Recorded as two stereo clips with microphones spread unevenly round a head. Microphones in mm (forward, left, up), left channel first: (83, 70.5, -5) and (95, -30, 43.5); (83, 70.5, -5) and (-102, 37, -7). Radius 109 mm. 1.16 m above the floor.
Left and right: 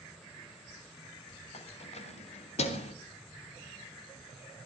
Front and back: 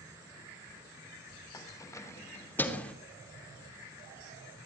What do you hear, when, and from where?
1.5 s keys jangling: 80° left, 3.5 m; by 3.0 s 95° left, 2.5 m